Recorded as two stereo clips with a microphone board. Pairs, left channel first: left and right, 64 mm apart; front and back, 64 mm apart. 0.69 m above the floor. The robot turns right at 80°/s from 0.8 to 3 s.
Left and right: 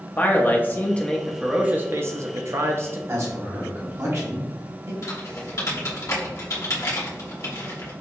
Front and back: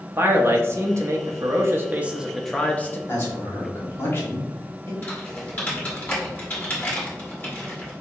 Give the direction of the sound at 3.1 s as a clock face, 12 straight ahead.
2 o'clock.